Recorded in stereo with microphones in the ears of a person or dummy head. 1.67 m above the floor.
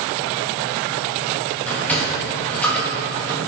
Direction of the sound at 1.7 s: 10° left (ahead or behind).